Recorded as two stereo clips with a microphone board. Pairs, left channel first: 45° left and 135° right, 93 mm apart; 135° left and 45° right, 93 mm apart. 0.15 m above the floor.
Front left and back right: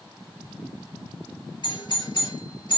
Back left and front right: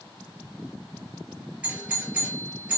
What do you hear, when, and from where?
1.6 s a doorbell: 30° left, 3 m